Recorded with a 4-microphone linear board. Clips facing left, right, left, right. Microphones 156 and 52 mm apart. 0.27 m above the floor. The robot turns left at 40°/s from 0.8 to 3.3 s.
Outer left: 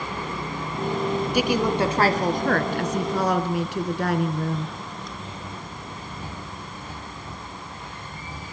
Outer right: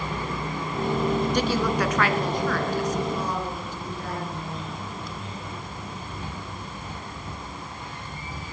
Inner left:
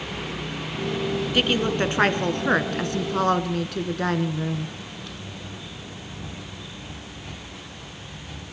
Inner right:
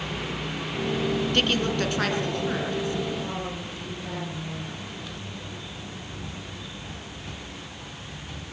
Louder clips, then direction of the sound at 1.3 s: Outer left 2 dB, inner left 5 dB; 170° left.